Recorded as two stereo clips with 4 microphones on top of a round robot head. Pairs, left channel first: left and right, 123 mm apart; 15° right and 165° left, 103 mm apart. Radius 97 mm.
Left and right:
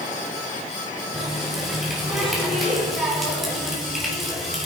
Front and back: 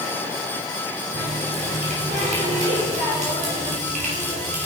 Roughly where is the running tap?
Behind.